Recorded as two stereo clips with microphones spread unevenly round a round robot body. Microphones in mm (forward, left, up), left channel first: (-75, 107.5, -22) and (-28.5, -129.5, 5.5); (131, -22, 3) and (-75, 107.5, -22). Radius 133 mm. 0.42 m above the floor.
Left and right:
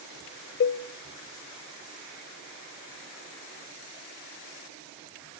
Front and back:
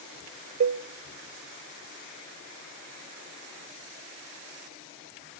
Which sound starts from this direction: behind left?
A cowbell, at 0.6 s.